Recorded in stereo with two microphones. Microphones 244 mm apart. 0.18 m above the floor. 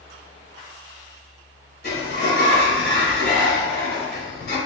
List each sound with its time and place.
1.8 s a sliding door: 40° left (ahead or behind), 1.2 m